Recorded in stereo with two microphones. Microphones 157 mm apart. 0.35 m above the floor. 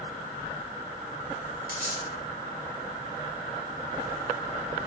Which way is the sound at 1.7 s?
65° right (ahead or behind).